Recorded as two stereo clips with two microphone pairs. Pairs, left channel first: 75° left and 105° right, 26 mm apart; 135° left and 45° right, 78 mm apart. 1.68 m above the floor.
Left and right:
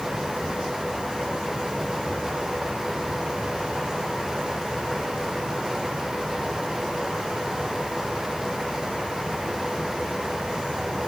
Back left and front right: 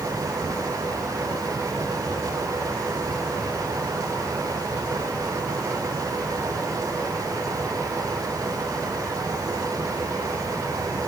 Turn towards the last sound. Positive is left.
No sound to turn to.